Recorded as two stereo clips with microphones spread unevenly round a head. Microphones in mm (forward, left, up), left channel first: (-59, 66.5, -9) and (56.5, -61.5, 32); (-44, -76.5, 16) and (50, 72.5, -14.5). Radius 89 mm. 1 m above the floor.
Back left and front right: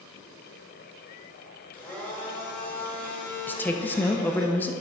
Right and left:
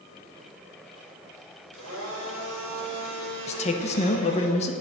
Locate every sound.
1.7 s a blender: 50° left, 3.5 m
3.5 s a woman speaking: 170° right, 0.9 m